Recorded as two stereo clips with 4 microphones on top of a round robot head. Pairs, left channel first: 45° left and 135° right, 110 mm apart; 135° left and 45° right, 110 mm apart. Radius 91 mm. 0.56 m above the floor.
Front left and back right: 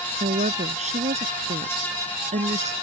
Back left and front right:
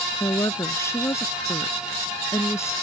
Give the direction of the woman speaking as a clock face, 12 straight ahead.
5 o'clock.